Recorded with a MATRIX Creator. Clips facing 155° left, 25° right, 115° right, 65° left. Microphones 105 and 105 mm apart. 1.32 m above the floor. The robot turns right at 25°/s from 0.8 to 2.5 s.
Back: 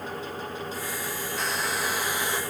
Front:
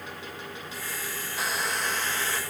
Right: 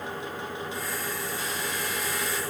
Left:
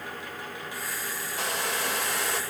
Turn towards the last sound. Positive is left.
turn(degrees=90)